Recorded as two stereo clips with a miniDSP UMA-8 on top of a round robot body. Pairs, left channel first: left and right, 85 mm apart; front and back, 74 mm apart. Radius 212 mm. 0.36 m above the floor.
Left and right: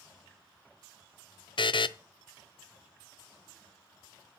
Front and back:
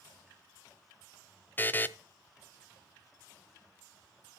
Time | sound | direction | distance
1.6 | a buzzer | 65° left | 0.6 m